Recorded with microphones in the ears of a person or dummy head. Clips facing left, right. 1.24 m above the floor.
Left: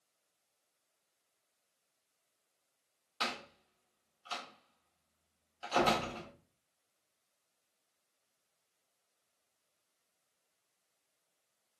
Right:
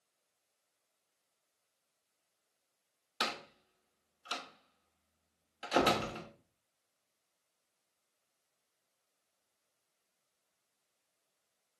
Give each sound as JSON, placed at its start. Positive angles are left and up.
{"t": 3.2, "sound": "a door slam", "side_deg": -20, "distance_m": 0.9}